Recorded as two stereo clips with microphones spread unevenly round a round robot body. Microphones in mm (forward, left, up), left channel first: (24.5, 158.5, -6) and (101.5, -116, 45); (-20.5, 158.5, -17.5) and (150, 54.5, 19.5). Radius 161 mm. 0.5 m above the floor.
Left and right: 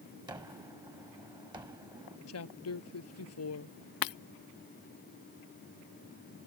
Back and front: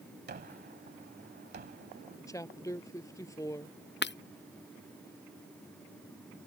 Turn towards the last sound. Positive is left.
turn(degrees=125)